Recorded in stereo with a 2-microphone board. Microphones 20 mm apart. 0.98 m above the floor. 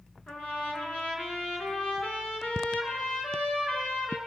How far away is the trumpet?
About 7.5 m.